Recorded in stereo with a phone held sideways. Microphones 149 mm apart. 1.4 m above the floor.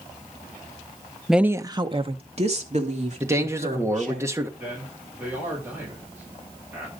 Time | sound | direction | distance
1.3 | a woman speaking | centre (ahead or behind) | 0.6 m
3.2 | a man speaking | 20° right (ahead or behind) | 1.5 m
4.6 | a man speaking | 10° right (ahead or behind) | 5.5 m